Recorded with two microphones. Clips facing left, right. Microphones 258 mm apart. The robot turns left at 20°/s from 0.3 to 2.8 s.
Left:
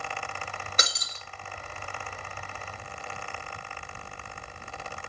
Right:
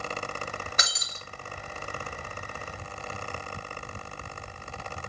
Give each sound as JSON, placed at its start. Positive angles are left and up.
{"t": 0.8, "sound": "breaking glass", "side_deg": 35, "distance_m": 1.5}